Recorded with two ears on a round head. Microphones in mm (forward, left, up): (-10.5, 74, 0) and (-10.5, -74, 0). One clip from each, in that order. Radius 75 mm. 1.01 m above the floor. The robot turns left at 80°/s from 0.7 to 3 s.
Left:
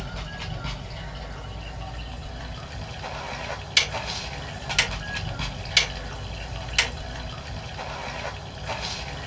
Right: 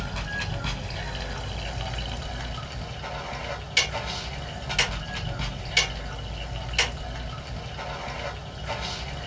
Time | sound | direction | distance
0.0 | running water | 15° right | 0.8 m
3.8 | ticking | 40° left (ahead or behind) | 2 m